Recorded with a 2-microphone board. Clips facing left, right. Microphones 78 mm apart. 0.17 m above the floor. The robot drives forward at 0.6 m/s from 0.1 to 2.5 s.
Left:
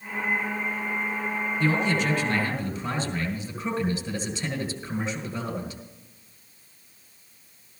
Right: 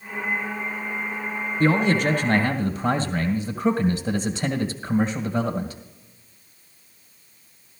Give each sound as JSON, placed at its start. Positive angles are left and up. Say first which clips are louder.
{"t": 1.6, "sound": "a man speaking", "louder": "right 6 dB", "side_deg": -50, "distance_m": 1.8}